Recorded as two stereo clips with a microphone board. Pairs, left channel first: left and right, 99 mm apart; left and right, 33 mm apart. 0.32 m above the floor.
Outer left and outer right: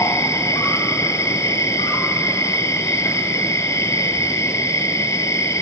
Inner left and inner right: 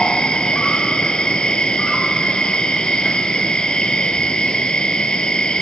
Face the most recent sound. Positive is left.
turn(degrees=30)  # may be behind; listen again after turning